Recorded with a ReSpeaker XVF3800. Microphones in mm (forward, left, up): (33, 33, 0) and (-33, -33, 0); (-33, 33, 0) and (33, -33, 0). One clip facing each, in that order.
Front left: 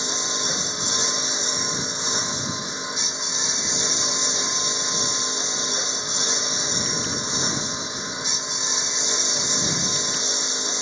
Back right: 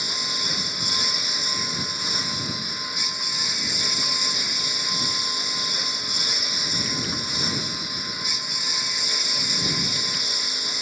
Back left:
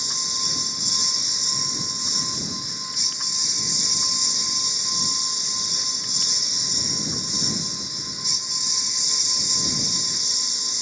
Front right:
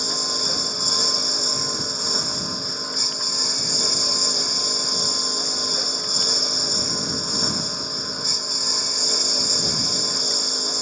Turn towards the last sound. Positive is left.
turn(degrees=-15)